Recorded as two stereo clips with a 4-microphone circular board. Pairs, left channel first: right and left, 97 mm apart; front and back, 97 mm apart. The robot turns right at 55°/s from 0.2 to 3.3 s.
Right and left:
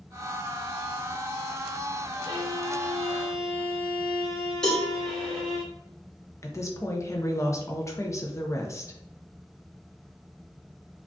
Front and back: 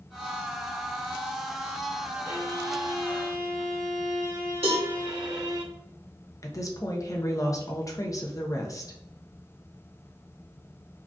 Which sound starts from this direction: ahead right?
A woman speaking, at 6.4 s.